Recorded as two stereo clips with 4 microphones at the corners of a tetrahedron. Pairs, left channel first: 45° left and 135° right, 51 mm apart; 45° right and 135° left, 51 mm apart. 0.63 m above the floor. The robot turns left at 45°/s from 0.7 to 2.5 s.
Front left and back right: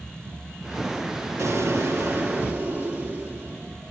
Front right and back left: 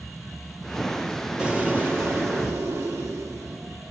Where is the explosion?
155° right, 2.5 m; by 3.8 s 155° left, 2.5 m.